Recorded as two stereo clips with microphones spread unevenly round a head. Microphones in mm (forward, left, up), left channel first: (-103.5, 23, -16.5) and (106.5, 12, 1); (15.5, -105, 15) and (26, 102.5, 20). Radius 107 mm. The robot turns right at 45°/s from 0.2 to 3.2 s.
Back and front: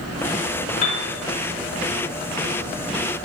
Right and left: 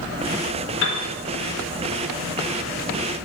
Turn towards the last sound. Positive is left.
turn(degrees=-15)